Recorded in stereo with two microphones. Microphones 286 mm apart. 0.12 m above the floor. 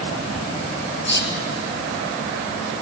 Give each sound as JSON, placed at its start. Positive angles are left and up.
{"t": 1.1, "sound": "whispering", "side_deg": 40, "distance_m": 2.5}